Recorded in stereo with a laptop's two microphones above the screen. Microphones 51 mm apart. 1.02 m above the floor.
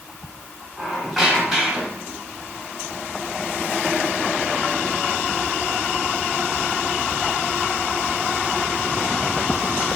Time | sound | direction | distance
0.8 | a squeak | 5° left (ahead or behind) | 1.1 m